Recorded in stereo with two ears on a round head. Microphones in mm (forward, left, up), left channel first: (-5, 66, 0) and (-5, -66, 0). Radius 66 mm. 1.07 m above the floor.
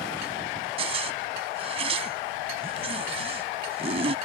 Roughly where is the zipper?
Right.